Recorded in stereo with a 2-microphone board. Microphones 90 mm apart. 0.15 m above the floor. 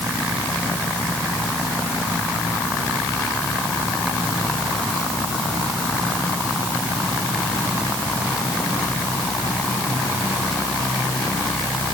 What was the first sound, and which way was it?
Only background noise.